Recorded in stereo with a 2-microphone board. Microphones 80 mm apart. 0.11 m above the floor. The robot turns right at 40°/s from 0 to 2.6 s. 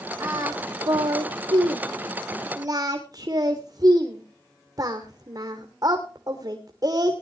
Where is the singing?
35° right (ahead or behind), 2.0 m; by 7.2 s 45° right (ahead or behind), 2.0 m.